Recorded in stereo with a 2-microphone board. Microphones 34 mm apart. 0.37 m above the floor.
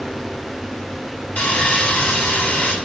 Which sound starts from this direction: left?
Sawing, at 1.4 s.